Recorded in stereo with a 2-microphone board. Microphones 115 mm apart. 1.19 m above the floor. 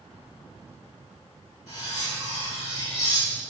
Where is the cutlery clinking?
80° left, 3.5 m.